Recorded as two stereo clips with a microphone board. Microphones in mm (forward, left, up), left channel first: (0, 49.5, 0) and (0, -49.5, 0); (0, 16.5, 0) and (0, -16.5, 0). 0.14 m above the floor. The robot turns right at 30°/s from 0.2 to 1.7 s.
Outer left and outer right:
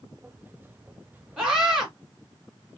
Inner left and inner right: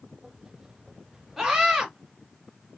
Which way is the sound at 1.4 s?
10° right (ahead or behind).